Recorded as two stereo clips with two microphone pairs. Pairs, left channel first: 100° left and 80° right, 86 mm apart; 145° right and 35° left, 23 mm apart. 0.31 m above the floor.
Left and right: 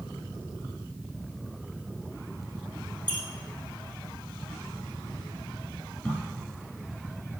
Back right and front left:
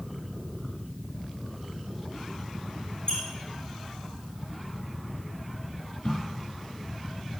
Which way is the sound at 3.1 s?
170° left.